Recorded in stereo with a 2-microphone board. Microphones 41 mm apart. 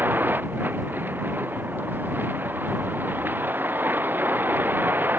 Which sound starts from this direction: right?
A vehicle, at 0.0 s.